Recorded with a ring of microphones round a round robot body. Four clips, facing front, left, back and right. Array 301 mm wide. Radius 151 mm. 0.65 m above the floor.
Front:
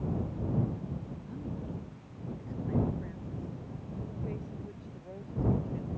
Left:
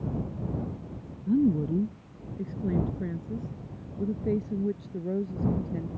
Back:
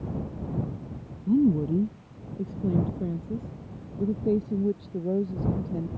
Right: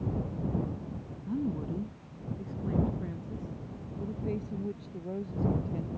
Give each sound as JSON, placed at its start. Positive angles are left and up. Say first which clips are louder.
{"t": 1.3, "sound": "a woman speaking", "louder": "left 9 dB, back 22 dB", "azimuth_deg": 150}